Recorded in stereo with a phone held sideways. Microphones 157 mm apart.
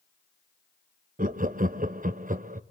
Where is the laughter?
60° right (ahead or behind), 0.8 m.